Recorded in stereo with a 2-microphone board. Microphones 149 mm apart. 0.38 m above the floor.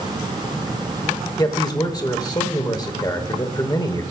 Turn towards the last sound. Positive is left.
turn(degrees=25)  # may be behind; listen again after turning